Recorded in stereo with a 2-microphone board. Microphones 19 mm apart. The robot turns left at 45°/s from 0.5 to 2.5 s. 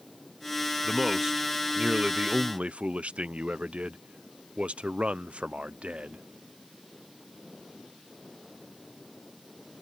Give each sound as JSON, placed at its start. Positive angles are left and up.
{"t": 0.8, "sound": "a man speaking", "azimuth_deg": -10}